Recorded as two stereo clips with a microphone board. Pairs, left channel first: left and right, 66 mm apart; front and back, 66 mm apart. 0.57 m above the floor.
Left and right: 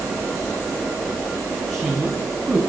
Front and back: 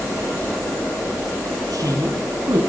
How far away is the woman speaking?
About 7 m.